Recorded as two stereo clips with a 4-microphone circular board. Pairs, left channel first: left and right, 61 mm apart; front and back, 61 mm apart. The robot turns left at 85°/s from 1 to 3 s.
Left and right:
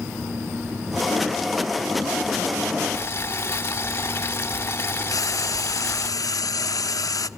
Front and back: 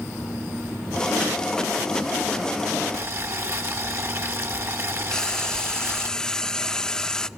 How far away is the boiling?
About 1.2 m.